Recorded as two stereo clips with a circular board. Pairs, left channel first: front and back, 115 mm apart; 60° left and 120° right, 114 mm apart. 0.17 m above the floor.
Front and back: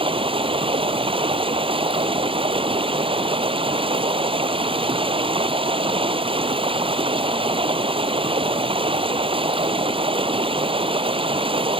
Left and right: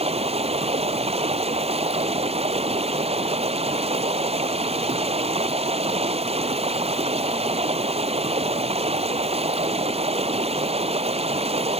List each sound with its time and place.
0.0 s running water: 145° right